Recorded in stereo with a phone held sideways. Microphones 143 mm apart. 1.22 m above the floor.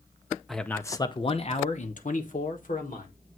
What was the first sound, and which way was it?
A man speaking, centre (ahead or behind).